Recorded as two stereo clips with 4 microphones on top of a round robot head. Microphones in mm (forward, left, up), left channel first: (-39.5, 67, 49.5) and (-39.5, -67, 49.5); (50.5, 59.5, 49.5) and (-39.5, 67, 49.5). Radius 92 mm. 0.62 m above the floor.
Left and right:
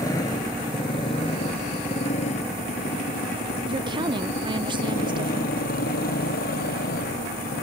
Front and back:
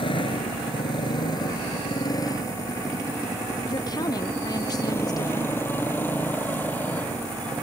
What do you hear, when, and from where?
0.0 s a motorcycle: 20° left; by 7.7 s 70° left
3.7 s a woman speaking: 40° right